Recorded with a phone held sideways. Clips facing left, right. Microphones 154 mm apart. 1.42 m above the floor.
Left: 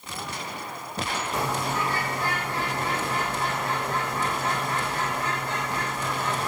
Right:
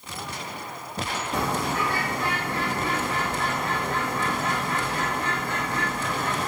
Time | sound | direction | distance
1.3 | a bird | 60° right (ahead or behind) | 1.2 m